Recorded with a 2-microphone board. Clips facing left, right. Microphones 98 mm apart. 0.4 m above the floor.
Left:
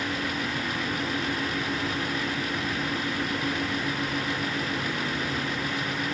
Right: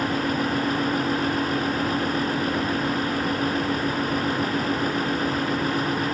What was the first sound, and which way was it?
Only background noise.